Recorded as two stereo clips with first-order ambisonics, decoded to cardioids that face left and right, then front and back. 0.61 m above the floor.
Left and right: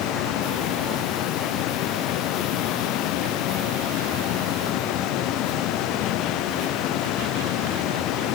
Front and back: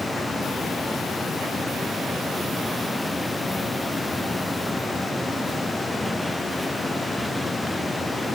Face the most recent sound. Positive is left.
No sound to turn to.